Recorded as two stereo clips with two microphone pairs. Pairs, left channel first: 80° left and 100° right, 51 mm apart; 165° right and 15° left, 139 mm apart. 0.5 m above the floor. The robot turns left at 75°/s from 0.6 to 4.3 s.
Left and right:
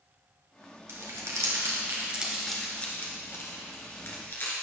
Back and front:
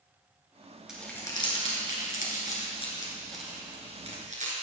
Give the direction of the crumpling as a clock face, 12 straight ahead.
2 o'clock.